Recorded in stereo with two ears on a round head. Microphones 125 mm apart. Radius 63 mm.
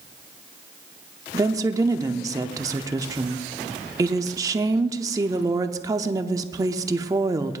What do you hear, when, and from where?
1.3 s a woman speaking: 25° right (ahead or behind), 0.7 m